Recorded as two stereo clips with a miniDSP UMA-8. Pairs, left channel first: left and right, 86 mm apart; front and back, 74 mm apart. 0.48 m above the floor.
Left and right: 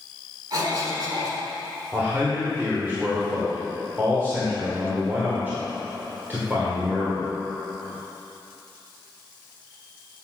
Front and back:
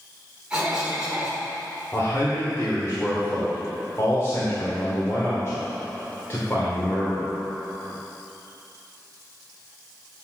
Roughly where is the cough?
Right.